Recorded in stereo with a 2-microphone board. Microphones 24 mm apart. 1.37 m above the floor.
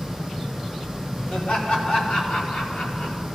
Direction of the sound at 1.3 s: 75° left (ahead or behind).